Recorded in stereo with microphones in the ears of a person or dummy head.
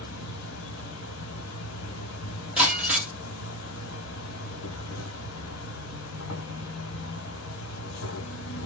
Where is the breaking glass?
10° right (ahead or behind), 2 m.